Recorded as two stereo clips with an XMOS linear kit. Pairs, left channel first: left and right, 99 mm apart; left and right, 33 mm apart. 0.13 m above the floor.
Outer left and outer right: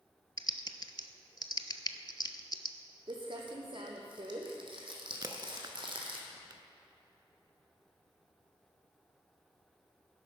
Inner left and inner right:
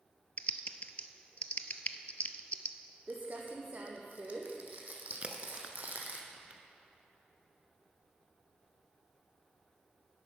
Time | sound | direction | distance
0.4 | typing on a keyboard | 50° left (ahead or behind) | 0.6 m
3.1 | crumpling | 55° right (ahead or behind) | 1.6 m
5.2 | a crack | 40° right (ahead or behind) | 0.8 m